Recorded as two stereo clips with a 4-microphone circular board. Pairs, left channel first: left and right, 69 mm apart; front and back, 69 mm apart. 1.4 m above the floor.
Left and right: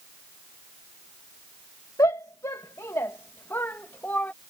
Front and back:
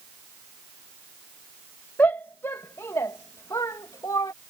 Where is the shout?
60° left; by 4.3 s 25° left.